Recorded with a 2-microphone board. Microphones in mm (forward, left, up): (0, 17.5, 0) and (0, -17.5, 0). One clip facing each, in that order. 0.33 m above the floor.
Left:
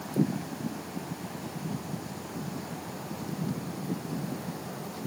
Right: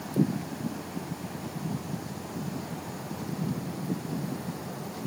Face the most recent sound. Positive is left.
No sound to turn to.